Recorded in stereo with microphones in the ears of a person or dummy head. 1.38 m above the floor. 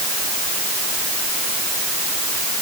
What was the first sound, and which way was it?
Only background noise.